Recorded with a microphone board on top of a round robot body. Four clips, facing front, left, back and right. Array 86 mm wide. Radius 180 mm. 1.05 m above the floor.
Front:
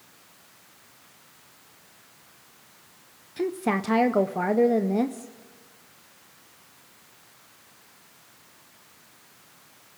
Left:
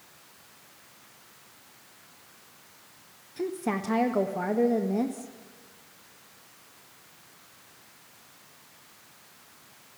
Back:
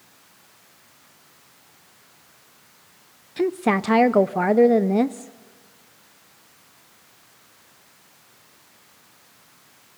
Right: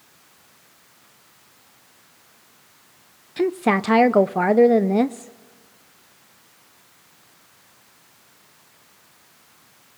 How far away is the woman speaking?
About 0.6 m.